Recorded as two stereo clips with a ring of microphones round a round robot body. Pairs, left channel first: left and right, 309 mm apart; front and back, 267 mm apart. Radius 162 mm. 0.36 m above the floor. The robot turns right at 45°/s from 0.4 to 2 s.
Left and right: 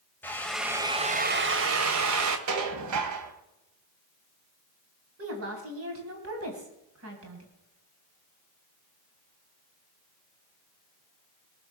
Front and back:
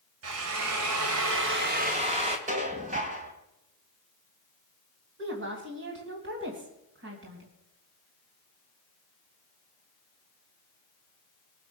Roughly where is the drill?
Behind.